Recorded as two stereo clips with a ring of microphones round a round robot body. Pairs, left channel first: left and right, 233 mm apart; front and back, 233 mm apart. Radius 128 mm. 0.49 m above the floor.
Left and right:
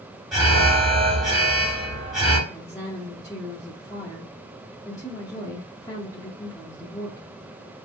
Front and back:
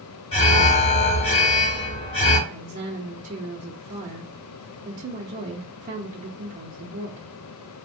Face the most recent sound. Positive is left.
turn(degrees=155)